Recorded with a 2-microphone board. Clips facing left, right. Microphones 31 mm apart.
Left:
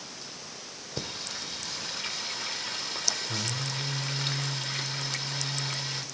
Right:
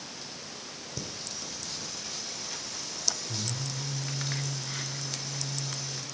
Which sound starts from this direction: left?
Singing, at 1.0 s.